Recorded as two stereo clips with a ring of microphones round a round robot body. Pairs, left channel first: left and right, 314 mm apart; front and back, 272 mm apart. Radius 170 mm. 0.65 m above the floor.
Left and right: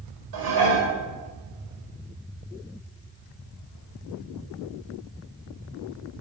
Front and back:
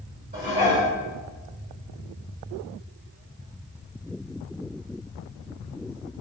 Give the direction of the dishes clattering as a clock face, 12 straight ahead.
4 o'clock.